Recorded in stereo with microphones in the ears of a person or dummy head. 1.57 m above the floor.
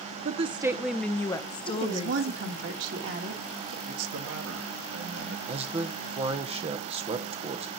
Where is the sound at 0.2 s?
45° right (ahead or behind), 0.7 m; by 2.7 s 40° left (ahead or behind), 2 m.